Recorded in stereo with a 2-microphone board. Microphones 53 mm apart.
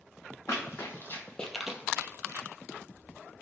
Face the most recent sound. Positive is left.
turn(degrees=-65)  # may be behind; listen again after turning